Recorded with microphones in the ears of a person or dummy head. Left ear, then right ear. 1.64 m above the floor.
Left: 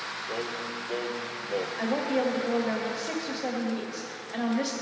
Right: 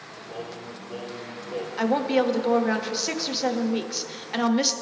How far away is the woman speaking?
About 0.8 m.